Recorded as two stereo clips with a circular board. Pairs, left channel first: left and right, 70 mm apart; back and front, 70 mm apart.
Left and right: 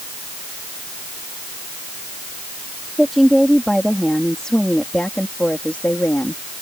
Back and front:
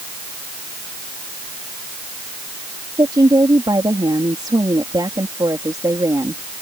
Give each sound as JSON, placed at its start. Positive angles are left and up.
{"t": 3.0, "sound": "a woman speaking", "azimuth_deg": 0}